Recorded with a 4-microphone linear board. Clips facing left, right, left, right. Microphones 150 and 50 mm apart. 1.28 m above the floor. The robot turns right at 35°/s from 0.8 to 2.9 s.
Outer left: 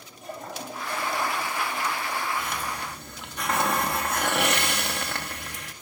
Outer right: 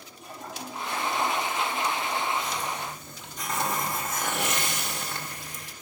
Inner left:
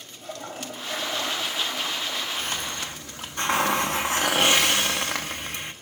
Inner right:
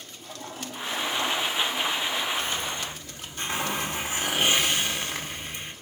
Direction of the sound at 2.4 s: 55° left (ahead or behind).